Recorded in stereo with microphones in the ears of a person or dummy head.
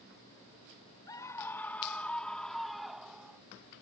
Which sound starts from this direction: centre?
A scream, at 1.1 s.